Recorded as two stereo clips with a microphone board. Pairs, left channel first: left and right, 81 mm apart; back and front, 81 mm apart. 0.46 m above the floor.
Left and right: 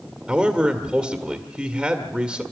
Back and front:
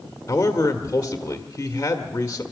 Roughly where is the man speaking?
Behind.